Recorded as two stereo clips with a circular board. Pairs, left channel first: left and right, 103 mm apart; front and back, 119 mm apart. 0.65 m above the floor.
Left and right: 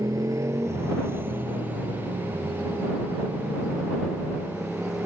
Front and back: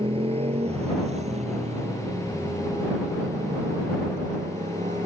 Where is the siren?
No siren in this recording.